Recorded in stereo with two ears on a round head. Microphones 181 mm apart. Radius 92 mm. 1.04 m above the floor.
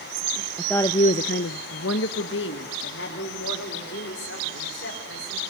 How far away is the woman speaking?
About 0.7 m.